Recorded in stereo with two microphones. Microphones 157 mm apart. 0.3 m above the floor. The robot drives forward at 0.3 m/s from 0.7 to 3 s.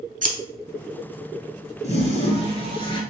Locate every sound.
0.2 s scissors: 55° right (ahead or behind), 0.5 m
1.8 s a toilet flushing: 45° left (ahead or behind), 0.7 m; by 3.0 s 30° left (ahead or behind), 1.0 m